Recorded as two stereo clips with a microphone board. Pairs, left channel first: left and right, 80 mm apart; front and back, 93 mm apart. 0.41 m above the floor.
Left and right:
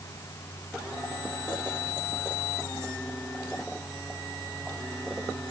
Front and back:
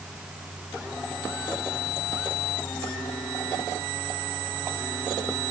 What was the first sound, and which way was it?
Only background noise.